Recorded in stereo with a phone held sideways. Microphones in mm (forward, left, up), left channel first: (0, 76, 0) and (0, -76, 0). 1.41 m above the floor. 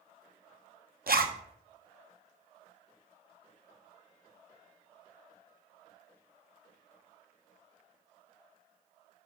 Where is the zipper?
80° right, 0.9 m.